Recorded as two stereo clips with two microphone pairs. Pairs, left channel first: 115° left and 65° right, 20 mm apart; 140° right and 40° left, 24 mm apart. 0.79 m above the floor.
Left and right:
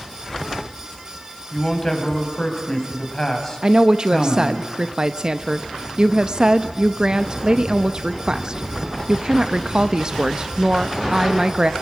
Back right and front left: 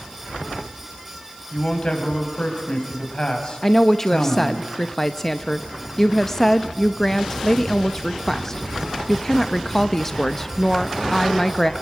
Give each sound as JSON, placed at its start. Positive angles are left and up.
{"t": 1.5, "sound": "a man speaking", "azimuth_deg": 175, "distance_m": 4.0}
{"t": 3.6, "sound": "a woman speaking", "azimuth_deg": -75, "distance_m": 0.6}